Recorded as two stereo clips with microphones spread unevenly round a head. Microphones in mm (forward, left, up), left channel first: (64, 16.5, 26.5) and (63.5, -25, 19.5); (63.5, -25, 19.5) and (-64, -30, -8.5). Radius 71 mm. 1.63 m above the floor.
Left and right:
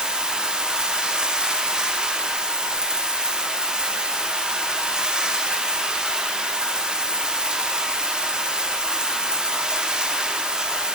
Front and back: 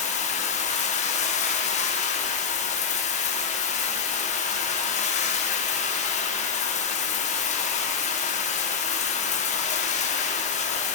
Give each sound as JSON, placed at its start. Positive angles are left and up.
{"t": 0.0, "sound": "running water", "azimuth_deg": -15, "distance_m": 1.0}